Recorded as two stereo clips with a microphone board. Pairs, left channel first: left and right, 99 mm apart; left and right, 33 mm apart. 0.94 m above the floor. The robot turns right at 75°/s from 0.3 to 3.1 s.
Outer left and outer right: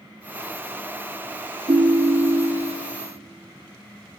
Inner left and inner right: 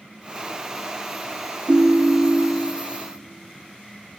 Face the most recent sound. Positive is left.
turn(degrees=-5)